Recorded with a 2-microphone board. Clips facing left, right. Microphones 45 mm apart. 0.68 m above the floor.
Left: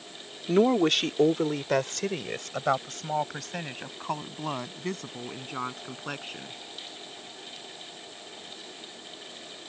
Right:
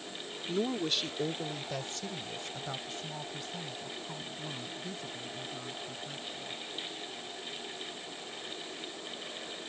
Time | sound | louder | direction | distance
0.5 | a woman speaking | left 11 dB | 55° left (ahead or behind) | ?